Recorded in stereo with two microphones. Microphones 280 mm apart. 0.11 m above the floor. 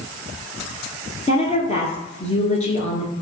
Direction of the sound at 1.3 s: 25° left (ahead or behind).